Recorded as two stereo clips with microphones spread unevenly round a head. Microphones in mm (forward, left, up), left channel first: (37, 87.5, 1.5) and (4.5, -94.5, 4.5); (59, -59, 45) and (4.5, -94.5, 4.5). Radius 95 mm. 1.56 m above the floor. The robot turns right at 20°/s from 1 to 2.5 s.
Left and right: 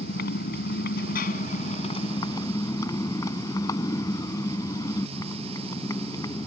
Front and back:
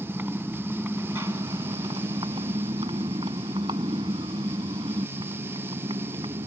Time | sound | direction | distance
0.0 | a motorcycle | 125° left | ?